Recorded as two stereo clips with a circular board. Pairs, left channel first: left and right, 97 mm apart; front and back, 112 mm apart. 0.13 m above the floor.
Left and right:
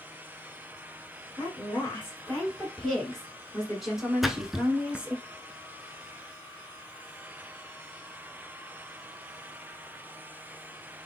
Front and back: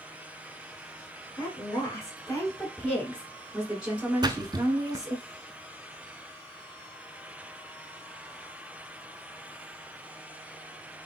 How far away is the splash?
About 0.5 m.